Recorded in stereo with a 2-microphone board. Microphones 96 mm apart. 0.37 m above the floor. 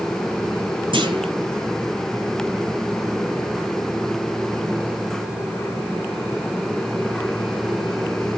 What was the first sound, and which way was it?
A clunk, 70° right (ahead or behind).